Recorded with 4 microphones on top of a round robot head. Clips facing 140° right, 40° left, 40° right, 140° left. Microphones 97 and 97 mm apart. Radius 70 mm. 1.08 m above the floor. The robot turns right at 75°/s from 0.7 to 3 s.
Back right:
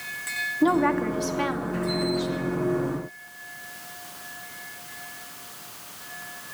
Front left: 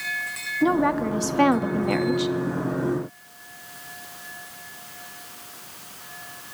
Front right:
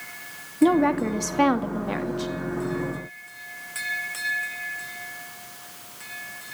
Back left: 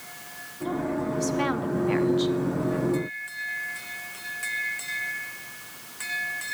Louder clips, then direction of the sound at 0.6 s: Even, front right 9 dB; 55° right.